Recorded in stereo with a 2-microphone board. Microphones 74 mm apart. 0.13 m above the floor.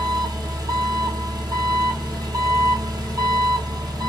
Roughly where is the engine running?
Right.